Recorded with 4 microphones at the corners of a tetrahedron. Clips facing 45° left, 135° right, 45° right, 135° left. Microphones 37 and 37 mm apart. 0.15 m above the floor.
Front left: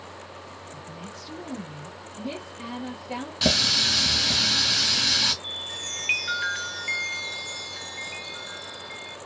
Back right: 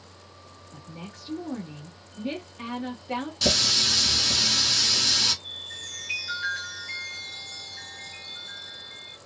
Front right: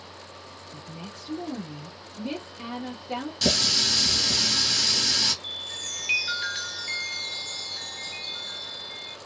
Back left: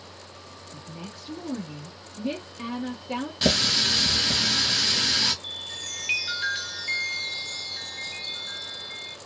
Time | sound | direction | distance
0.7 | a woman speaking | 175° right | 1.3 m
3.4 | a running tap | 85° left | 1.0 m
5.4 | a chime | 50° left | 0.6 m